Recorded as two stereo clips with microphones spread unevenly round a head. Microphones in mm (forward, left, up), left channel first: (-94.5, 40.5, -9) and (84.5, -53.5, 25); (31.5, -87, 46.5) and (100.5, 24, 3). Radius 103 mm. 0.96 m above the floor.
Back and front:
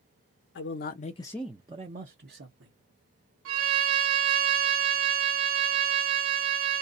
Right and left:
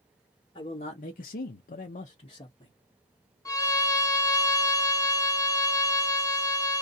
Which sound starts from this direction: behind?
A man speaking, at 0.6 s.